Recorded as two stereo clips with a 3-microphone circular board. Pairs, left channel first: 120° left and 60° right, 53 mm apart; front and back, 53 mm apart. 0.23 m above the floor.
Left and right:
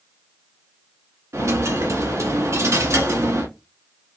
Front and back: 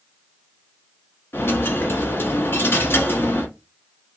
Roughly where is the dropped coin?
Ahead right.